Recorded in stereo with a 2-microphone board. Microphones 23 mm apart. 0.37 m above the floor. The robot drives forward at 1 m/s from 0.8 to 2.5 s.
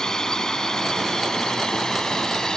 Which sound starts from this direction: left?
A drone, at 0.0 s.